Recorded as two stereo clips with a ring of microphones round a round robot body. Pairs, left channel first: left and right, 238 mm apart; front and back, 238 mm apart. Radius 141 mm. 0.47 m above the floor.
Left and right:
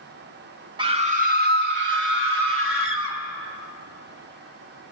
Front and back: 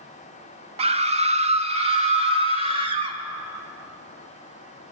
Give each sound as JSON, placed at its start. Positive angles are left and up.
{"t": 0.8, "sound": "a scream", "azimuth_deg": -140, "distance_m": 0.7}